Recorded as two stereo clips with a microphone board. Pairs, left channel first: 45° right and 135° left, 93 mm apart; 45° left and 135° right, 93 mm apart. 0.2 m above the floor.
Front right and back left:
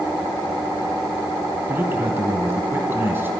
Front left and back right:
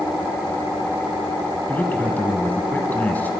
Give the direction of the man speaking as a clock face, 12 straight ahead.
9 o'clock.